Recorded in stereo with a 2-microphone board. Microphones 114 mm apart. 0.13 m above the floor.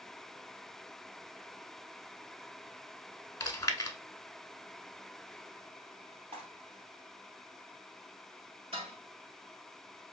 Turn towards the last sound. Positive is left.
turn(degrees=-55)  # may be behind; listen again after turning